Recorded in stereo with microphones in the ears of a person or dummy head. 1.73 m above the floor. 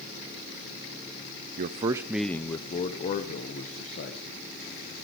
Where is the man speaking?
40° right (ahead or behind), 0.6 m; by 4.4 s 50° left (ahead or behind), 1.6 m.